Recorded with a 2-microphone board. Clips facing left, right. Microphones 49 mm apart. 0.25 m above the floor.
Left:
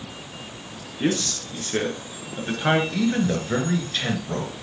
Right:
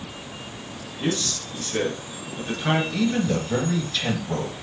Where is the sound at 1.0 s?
35° left (ahead or behind), 4.5 m; by 2.8 s 45° left (ahead or behind), 3.5 m.